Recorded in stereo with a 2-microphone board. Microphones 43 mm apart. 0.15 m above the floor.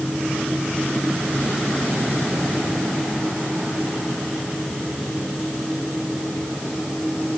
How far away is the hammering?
No hammering in this recording.